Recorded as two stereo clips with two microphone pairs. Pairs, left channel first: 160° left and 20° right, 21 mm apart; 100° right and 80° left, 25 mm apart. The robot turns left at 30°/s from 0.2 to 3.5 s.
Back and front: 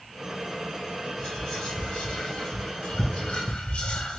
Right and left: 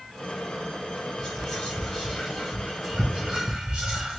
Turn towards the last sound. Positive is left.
turn(degrees=135)